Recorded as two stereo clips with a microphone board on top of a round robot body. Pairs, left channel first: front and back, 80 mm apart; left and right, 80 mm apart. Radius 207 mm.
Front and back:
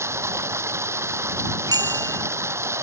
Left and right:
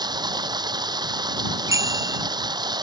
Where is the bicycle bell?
140° right.